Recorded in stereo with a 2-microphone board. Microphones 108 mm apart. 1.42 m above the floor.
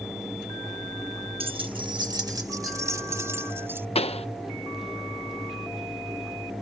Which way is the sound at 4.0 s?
70° left (ahead or behind).